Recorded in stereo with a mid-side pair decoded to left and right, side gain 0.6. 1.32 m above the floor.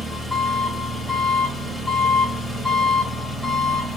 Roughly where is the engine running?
Ahead.